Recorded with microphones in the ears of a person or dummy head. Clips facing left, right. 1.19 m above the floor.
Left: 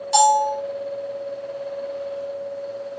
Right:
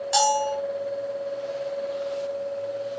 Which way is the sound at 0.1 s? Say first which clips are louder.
Left 6 dB; centre (ahead or behind).